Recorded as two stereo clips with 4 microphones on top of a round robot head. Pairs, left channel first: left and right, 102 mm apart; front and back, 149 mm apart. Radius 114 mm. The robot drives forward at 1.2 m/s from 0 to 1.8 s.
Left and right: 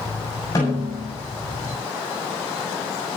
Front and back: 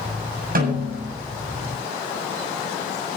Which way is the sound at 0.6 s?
155° left.